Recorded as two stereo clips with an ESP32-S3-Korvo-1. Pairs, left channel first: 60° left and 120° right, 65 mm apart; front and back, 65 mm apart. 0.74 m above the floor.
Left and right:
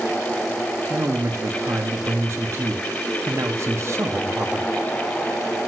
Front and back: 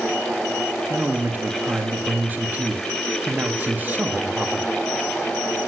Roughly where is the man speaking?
Behind right.